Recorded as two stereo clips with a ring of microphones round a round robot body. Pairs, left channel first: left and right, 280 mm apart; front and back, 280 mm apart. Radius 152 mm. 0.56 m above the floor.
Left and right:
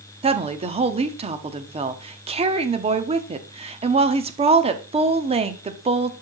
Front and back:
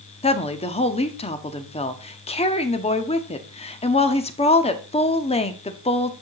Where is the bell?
I don't hear a bell.